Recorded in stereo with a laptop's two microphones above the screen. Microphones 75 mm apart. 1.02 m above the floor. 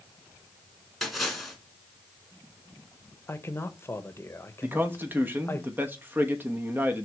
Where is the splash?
Centre (ahead or behind), 1.8 m.